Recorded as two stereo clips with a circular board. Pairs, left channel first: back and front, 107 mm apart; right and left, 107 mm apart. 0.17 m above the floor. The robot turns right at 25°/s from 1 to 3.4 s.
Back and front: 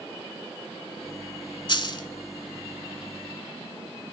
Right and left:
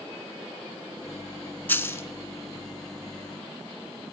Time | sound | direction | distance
1.7 | a dropped coin | 155° right | 0.6 m